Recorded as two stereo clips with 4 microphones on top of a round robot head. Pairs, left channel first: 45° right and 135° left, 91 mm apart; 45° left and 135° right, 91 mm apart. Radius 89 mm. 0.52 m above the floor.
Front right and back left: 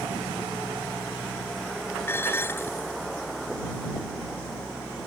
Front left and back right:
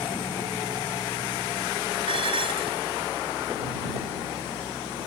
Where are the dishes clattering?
110° right.